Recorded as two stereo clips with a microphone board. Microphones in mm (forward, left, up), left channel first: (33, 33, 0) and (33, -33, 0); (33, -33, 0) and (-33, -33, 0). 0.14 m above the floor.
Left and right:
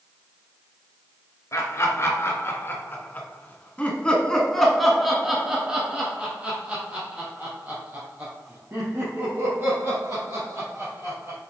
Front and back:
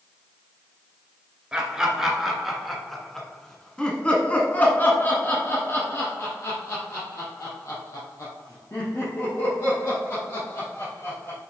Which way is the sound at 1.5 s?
105° left.